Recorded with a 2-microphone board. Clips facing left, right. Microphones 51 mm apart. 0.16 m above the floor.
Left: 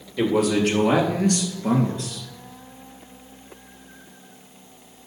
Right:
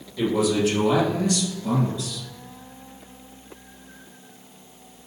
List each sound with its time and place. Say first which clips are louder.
0.2 s a man speaking: left 1 dB; 55° left (ahead or behind), 4 m; by 2.2 s 50° left (ahead or behind), 2.5 m